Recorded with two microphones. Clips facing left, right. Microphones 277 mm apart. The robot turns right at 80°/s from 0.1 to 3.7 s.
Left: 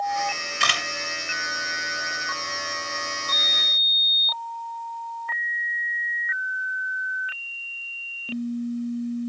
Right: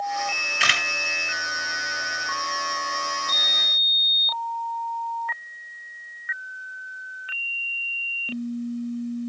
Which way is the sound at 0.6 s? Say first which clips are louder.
Even; 5° right (ahead or behind).